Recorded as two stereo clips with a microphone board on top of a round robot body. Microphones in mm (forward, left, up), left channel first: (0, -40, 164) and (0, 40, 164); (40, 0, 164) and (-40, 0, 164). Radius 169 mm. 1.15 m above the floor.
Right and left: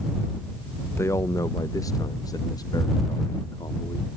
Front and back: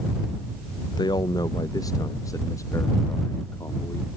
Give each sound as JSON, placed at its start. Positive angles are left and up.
{"t": 1.0, "sound": "a man speaking", "azimuth_deg": -30}